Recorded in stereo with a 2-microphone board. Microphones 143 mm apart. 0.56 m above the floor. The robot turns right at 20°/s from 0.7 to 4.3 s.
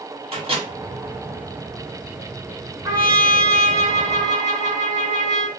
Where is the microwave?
40° right (ahead or behind), 1.0 m.